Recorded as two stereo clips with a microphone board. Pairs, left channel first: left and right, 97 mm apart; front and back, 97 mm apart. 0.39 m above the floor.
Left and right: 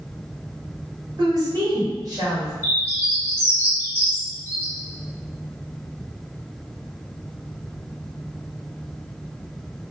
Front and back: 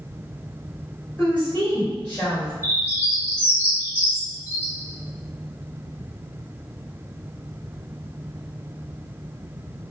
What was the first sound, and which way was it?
A woman speaking, 65° right.